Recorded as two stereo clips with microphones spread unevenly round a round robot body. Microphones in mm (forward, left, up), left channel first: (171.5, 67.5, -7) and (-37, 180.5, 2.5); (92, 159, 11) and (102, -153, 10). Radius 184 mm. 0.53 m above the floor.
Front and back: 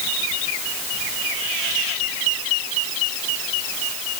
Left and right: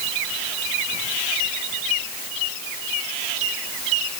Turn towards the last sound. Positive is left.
No sound to turn to.